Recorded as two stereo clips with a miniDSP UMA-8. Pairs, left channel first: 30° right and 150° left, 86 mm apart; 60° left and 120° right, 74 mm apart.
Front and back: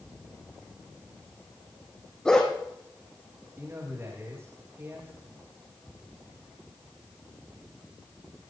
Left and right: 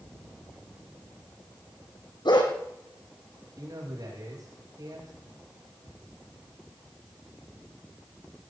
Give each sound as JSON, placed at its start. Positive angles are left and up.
{"t": 2.2, "sound": "a dog barking", "azimuth_deg": 50, "distance_m": 3.0}
{"t": 3.6, "sound": "a man speaking", "azimuth_deg": -150, "distance_m": 8.0}